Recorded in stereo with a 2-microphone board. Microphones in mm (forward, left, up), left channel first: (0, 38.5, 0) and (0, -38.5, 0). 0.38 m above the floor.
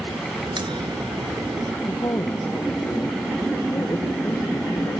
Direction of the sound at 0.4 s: 80° right.